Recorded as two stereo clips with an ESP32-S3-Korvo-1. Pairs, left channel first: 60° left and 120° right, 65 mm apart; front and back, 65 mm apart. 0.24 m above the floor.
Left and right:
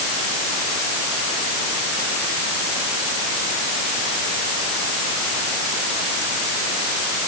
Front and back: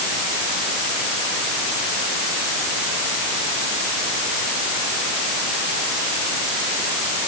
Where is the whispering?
No whispering in this recording.